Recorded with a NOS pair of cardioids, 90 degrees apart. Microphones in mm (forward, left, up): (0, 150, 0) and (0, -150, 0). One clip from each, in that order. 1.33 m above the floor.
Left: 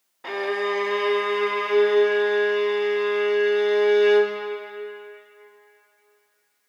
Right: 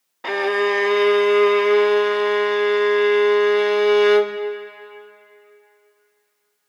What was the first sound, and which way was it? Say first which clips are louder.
A violin: right 6 dB; 35° right.